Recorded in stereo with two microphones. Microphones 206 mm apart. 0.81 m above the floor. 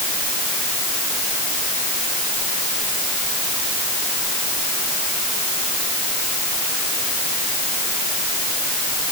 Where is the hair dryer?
I don't hear a hair dryer.